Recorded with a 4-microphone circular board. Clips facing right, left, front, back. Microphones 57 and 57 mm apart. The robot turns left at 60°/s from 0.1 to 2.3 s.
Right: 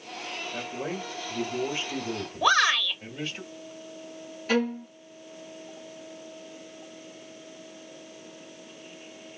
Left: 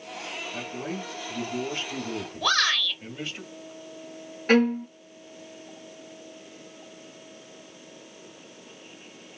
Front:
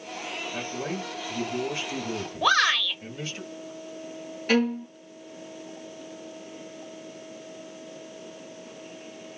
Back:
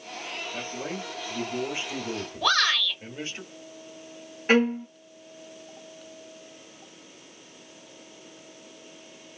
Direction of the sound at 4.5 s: 125° left.